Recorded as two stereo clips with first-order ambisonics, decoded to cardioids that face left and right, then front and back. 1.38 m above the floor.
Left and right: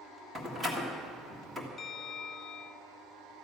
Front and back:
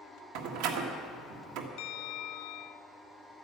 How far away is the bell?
About 0.6 m.